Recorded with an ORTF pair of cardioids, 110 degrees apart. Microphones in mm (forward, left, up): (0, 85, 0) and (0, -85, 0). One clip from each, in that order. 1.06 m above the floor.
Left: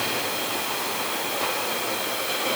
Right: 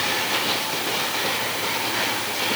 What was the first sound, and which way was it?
Only background noise.